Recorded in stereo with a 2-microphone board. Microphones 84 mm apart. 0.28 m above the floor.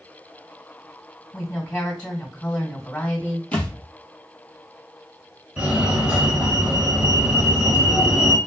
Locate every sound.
1.3 s a woman speaking: 20° left (ahead or behind), 1.6 m
3.5 s a thud: 15° left (ahead or behind), 1.5 m
5.6 s a fire alarm: 15° right (ahead or behind), 1.9 m